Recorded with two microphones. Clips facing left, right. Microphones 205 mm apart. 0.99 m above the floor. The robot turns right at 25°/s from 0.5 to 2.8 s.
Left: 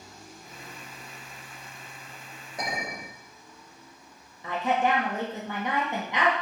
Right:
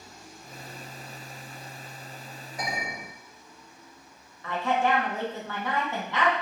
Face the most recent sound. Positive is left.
turn(degrees=20)  # may be behind; listen again after turning